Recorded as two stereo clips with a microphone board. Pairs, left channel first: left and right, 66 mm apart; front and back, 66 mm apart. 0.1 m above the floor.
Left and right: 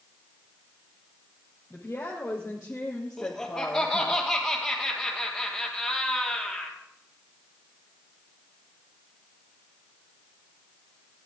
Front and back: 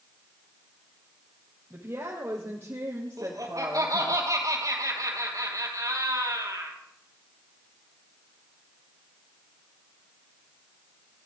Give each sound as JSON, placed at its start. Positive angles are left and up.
{"t": 1.7, "sound": "a woman speaking", "azimuth_deg": 130, "distance_m": 2.5}
{"t": 3.2, "sound": "laughter", "azimuth_deg": 170, "distance_m": 3.0}